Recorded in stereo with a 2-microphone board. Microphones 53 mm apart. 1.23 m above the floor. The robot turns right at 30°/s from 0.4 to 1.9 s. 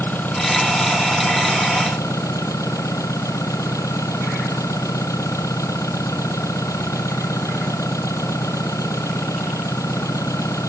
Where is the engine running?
40° left; by 10.7 s 85° left.